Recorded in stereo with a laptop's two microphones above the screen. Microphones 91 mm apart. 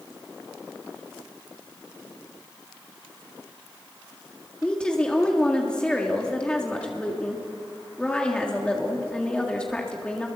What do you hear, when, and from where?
4.6 s a woman speaking: 10° left (ahead or behind), 1.8 m